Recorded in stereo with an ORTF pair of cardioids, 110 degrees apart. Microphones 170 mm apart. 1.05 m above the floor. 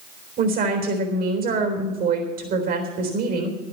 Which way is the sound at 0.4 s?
65° right.